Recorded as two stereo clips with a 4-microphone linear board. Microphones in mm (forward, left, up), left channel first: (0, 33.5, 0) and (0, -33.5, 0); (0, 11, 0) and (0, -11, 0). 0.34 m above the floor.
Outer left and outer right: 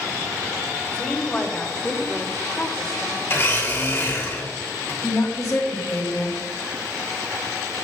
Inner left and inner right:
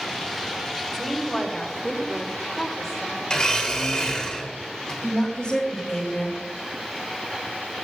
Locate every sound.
0.9 s a woman speaking: 15° left (ahead or behind), 1.8 m; by 3.2 s 5° right (ahead or behind), 1.5 m
3.3 s a blender: 35° left (ahead or behind), 2.5 m
5.0 s a woman speaking: 35° left (ahead or behind), 2 m